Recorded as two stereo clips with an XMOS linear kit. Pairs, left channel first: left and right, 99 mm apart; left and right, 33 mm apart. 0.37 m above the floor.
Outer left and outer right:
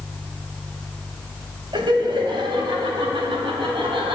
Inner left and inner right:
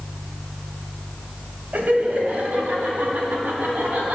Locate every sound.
1.7 s laughter: 55° right (ahead or behind), 2.5 m; by 4.2 s 60° right (ahead or behind), 4 m